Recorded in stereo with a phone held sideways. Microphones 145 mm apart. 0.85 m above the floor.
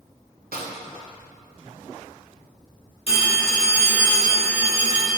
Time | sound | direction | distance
0.5 | a snare drum | 90° right | 0.6 m
3.1 | a phone ringing | 40° left (ahead or behind) | 1.2 m